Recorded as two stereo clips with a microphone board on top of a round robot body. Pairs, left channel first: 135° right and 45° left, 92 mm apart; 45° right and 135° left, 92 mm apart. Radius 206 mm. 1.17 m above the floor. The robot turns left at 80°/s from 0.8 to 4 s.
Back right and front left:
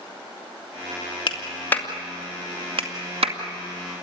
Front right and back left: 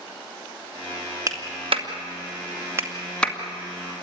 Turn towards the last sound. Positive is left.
turn(degrees=-25)